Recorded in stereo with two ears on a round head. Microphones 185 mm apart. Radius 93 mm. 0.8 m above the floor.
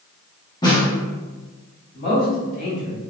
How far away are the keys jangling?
No keys jangling in this recording.